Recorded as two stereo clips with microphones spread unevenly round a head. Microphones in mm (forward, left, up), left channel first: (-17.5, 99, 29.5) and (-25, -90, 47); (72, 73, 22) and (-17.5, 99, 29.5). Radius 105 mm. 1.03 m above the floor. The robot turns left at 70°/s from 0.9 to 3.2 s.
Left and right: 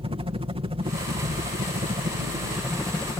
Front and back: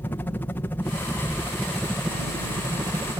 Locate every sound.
0.0 s a helicopter: 55° right; by 3.2 s 145° left